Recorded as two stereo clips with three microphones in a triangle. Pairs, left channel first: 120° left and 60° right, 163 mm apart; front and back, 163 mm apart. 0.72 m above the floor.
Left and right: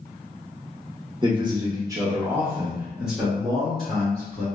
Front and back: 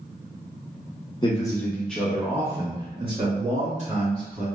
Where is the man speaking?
30° right, 1.0 m; by 4.5 s 155° right, 1.7 m.